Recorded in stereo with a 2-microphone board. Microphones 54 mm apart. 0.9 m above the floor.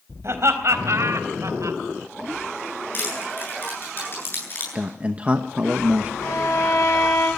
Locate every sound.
0.2 s laughter: 55° right (ahead or behind), 4 m; by 1.8 s 80° right, 3 m
2.9 s crushing: 40° left (ahead or behind), 9 m
4.8 s a man speaking: 25° right (ahead or behind), 0.9 m
6.2 s a violin: 80° left, 6.5 m